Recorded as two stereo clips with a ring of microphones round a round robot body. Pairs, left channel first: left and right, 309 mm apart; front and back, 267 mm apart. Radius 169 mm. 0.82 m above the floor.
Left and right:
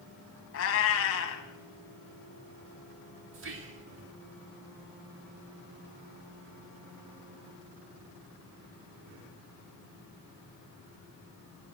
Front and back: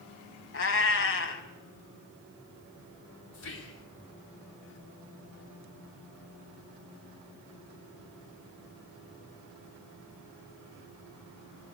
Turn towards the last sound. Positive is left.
turn(degrees=-40)